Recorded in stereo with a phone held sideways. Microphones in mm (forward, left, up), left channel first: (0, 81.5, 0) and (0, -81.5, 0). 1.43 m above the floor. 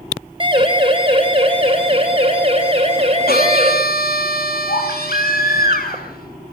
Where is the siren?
30° right (ahead or behind), 5.5 m; by 3.7 s 40° right (ahead or behind), 7 m.